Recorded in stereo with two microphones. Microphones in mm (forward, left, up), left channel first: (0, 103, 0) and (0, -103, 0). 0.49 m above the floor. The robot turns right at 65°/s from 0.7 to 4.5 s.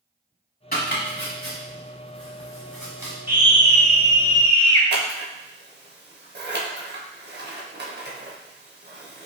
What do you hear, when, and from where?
0.7 s chopping: 45° left (ahead or behind), 1.1 m; by 3.1 s 25° right (ahead or behind), 1.1 m
3.3 s a scream: 10° right (ahead or behind), 0.7 m; by 4.8 s 20° left (ahead or behind), 0.7 m
4.9 s scissors: 55° right (ahead or behind), 0.6 m